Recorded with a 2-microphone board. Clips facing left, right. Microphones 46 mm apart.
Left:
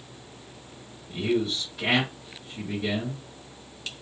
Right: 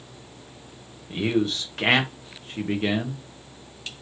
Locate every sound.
1.1 s a man speaking: 65° right (ahead or behind), 1.1 m